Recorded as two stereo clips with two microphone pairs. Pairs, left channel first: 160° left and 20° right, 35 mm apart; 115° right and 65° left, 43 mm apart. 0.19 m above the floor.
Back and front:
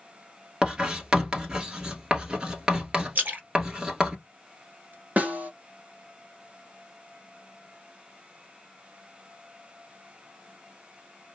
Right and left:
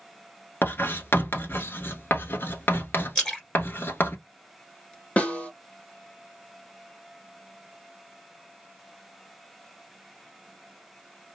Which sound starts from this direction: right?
Writing, at 0.6 s.